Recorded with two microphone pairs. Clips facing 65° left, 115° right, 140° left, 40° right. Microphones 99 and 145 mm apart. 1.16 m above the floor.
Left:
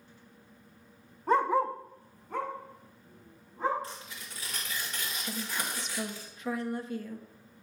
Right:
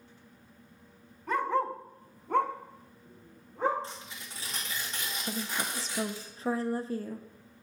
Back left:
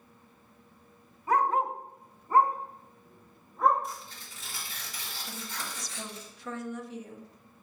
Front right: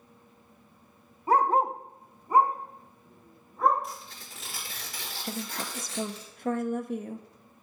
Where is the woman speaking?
65° right, 0.9 m.